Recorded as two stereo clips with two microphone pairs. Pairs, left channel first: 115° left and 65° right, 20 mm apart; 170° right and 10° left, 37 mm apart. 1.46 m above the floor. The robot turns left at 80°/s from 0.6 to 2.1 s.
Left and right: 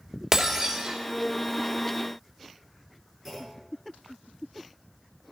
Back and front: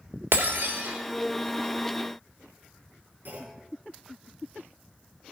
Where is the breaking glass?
5° right, 3 m; by 1.0 s 35° right, 3 m.